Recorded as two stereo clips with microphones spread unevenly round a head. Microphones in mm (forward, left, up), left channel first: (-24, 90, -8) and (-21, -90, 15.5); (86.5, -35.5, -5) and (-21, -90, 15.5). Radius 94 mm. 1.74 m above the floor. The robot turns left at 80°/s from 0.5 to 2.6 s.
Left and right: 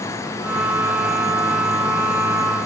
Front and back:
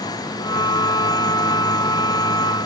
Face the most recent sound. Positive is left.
No sound to turn to.